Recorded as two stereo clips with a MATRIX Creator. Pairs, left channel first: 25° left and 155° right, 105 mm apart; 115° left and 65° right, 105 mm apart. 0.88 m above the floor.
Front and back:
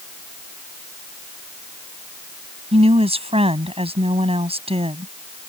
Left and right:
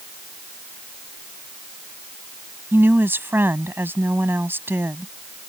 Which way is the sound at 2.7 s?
135° right.